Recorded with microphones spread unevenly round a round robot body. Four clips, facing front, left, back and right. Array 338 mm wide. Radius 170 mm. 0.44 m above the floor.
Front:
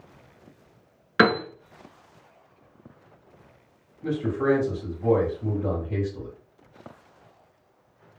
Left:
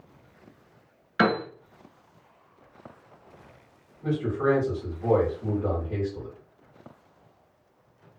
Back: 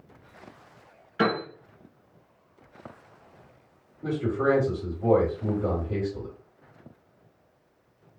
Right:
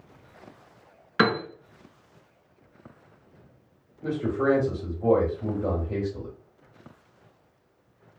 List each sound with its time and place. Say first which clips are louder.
1.2 s a piano: even, front 5 dB; 20° right, 1.2 m
4.0 s a man speaking: even, front 1 dB; 130° right, 2.5 m